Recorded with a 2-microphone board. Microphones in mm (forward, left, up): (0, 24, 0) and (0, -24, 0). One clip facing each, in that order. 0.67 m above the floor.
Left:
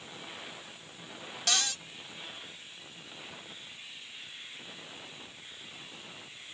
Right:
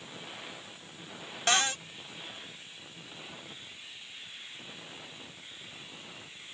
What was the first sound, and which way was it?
A cupboard door, 30° right (ahead or behind).